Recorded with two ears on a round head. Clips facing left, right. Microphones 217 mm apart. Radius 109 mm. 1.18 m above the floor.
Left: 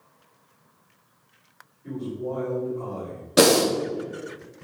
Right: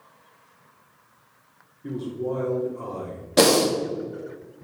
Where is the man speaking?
60° right (ahead or behind), 3 m.